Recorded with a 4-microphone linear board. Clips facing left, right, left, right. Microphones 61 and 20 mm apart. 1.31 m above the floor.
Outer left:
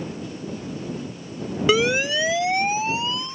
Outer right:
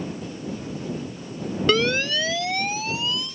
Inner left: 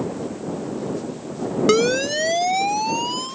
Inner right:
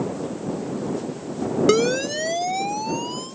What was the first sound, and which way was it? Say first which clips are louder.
A siren: outer left 2 dB, inner left 3 dB; 5° left (ahead or behind).